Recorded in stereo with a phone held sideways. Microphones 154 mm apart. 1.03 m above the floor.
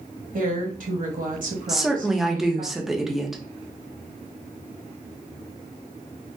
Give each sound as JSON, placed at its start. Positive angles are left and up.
{"t": 0.3, "sound": "a woman speaking", "side_deg": -60, "distance_m": 1.2}
{"t": 1.7, "sound": "a woman speaking", "side_deg": 0, "distance_m": 0.7}